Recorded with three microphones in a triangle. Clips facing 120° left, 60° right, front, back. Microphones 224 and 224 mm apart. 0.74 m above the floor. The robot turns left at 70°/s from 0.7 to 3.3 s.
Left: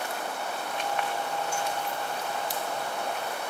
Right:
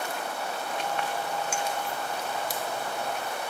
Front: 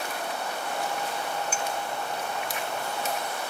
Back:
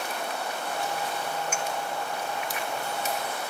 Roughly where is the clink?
Ahead right.